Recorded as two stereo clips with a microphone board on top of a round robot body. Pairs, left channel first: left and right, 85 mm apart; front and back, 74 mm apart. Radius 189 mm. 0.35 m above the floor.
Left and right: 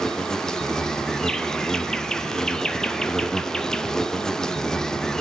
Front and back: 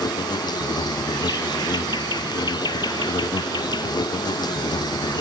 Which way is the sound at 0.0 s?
5° left.